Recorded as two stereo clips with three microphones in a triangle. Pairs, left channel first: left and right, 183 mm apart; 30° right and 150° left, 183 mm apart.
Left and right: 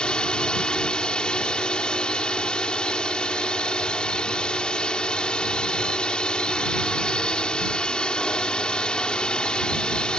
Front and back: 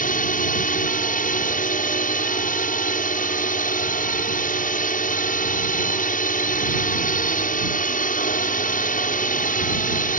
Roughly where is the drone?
Ahead.